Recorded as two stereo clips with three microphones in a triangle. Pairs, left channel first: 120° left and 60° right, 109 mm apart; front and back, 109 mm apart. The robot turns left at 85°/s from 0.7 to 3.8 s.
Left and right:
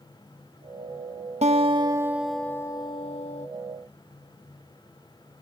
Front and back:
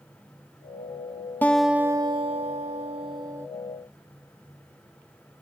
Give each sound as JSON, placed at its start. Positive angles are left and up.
{"t": 1.4, "sound": "a guitar", "azimuth_deg": -75}